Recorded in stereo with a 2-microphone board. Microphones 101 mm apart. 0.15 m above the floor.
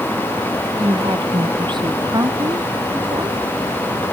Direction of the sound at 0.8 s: 50° right (ahead or behind).